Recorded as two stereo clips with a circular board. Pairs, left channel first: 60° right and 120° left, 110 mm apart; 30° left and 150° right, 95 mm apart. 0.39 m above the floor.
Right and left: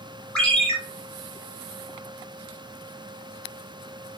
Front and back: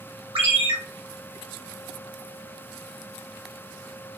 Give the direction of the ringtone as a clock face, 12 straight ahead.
5 o'clock.